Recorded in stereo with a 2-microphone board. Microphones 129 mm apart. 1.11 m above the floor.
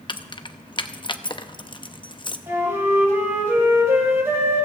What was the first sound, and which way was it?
Keys jangling, 35° left (ahead or behind).